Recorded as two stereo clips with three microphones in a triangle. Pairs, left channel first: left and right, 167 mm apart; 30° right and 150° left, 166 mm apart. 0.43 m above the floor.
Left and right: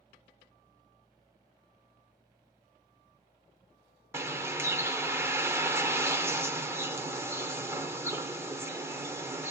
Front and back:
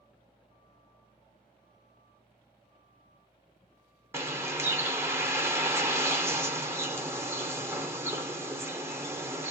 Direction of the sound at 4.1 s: 150° right.